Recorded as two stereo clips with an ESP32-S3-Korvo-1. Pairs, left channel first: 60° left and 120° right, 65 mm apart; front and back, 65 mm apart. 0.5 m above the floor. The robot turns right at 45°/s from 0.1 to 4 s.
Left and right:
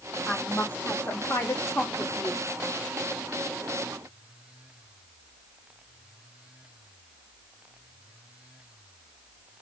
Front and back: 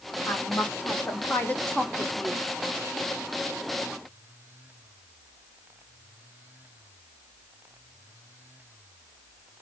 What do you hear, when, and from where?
0.3 s a woman speaking: 5° right, 0.8 m; by 2.5 s 95° left, 0.8 m